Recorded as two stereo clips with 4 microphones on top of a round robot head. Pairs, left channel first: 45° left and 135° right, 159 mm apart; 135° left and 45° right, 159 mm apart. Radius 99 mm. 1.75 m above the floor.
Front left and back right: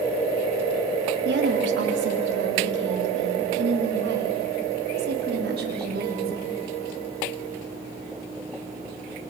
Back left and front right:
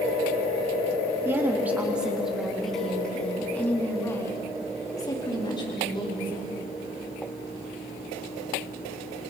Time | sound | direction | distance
1.2 | a woman speaking | 125° right | 3.5 m